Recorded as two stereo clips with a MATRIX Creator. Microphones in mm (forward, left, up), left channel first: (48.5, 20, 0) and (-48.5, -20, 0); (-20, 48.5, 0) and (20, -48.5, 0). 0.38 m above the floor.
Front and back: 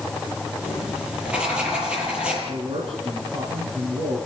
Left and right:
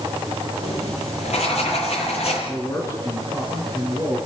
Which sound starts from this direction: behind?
A man speaking, at 2.5 s.